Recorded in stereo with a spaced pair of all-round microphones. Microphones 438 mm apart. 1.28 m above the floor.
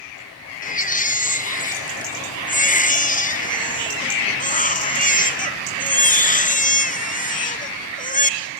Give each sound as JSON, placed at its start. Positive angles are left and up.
{"t": 0.6, "sound": "a baby crying", "side_deg": 20, "distance_m": 1.0}